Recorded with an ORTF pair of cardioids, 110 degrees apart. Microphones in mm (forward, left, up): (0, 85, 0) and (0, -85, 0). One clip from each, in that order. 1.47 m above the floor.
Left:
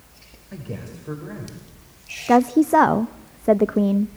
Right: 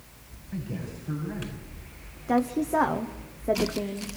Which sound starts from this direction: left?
A man speaking, at 0.5 s.